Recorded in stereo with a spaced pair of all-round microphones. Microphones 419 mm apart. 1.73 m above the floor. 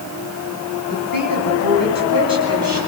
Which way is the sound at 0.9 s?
50° left (ahead or behind).